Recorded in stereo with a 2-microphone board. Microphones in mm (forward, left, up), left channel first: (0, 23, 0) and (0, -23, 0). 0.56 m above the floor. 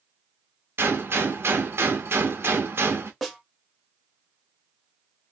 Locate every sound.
0.8 s a gunshot: 55° right (ahead or behind), 0.8 m
3.2 s a snare drum: centre (ahead or behind), 0.9 m